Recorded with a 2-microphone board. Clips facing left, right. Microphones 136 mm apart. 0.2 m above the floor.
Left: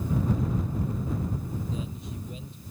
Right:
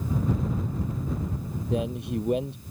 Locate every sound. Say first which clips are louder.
1.7 s a man speaking: right 8 dB; 70° right (ahead or behind)